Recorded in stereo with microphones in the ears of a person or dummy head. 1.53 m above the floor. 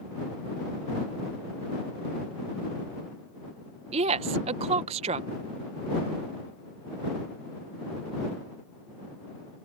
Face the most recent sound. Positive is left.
turn(degrees=-35)  # may be behind; listen again after turning